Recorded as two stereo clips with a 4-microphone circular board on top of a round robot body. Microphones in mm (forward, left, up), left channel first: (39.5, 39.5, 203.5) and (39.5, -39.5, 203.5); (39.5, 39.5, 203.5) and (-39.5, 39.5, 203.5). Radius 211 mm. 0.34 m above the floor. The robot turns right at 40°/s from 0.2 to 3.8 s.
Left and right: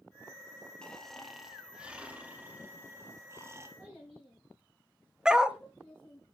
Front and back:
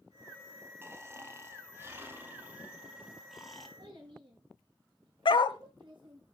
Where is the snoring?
160° left, 1.5 m; by 3.7 s 85° right, 1.5 m.